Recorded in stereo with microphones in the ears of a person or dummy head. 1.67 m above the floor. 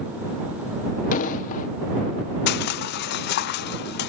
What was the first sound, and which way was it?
An explosion, 40° left (ahead or behind).